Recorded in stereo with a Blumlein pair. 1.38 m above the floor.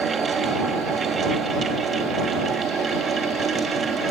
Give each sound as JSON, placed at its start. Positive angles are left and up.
{"t": 0.0, "sound": "a fan", "azimuth_deg": -20}